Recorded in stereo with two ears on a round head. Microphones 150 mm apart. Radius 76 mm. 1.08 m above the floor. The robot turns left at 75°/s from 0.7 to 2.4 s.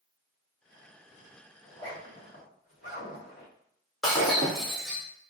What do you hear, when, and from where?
1.6 s a zipper: centre (ahead or behind), 1.9 m; by 3.5 s 60° left (ahead or behind), 1.9 m
4.0 s breaking glass: centre (ahead or behind), 1.5 m